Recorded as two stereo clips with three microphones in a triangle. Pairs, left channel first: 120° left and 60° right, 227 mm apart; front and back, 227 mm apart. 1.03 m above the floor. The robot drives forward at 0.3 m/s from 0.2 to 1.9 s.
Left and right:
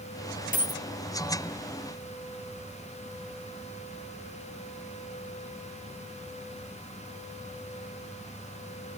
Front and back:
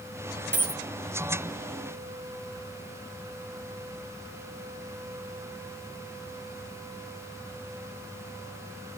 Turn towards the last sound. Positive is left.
turn(degrees=170)